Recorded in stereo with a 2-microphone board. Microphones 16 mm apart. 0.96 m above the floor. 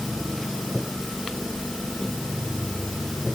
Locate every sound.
Only background noise.